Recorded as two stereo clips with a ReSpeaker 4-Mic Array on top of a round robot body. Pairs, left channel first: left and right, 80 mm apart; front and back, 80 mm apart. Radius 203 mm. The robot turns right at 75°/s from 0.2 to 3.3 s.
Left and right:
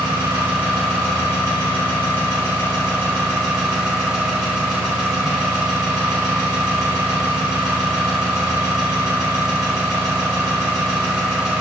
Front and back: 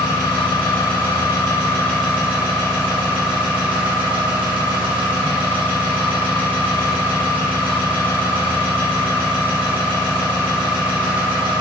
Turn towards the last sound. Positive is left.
turn(degrees=-175)